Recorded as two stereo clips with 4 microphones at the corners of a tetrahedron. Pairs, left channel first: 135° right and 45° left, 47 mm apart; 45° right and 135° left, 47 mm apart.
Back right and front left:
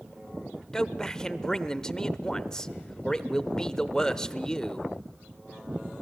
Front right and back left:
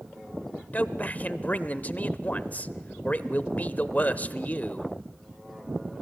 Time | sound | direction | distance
0.7 | a man speaking | 65° right | 0.9 m